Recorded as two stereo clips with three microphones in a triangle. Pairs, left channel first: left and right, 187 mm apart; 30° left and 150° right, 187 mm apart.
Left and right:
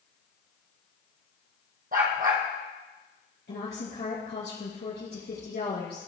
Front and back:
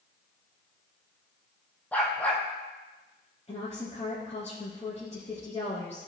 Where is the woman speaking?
80° left, 3 m.